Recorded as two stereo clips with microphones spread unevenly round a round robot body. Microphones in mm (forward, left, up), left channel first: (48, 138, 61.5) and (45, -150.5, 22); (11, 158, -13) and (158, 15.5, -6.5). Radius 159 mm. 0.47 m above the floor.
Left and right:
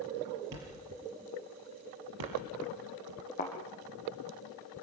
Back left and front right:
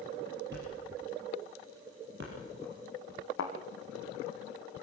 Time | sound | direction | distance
0.5 | a thud | 100° right | 5.5 m
3.4 | a thud | 155° left | 3.5 m